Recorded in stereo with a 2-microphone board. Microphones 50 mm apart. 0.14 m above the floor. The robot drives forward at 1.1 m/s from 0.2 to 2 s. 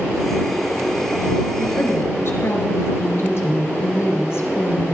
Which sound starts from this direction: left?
A woman speaking, at 1.6 s.